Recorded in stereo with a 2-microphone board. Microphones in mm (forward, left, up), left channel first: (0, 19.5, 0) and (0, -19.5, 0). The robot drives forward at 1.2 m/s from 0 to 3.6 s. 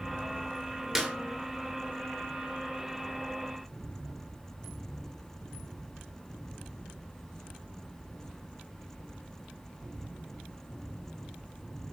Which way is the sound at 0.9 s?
10° right (ahead or behind).